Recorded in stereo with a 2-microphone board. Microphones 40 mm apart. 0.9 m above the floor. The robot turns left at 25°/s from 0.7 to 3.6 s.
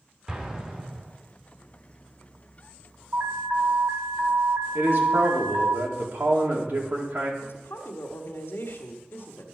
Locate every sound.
0.3 s an explosion: 15° right (ahead or behind), 2.5 m; by 1.1 s 25° right (ahead or behind), 2.5 m
3.1 s an alarm: 65° right (ahead or behind), 2.5 m; by 5.8 s 60° right (ahead or behind), 2.5 m
4.8 s a man speaking: 60° right (ahead or behind), 2.5 m
7.4 s a woman speaking: 65° left (ahead or behind), 1.5 m